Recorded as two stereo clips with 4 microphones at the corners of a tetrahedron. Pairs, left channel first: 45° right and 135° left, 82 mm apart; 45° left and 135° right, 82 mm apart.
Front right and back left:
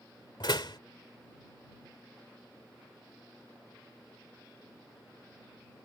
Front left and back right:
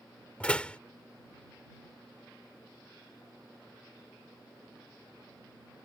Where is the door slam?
30° right.